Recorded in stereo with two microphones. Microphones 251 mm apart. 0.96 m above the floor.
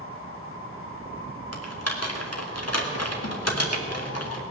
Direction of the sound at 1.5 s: 75° left (ahead or behind).